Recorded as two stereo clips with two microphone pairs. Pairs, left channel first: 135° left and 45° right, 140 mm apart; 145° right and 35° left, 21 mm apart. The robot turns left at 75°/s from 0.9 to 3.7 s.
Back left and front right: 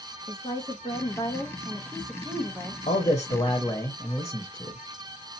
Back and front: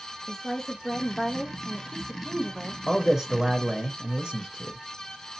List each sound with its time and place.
0.3 s a woman speaking: 150° left, 0.8 m; by 2.8 s 10° left, 0.8 m
2.9 s a man speaking: 130° left, 0.8 m; by 4.8 s 70° left, 0.8 m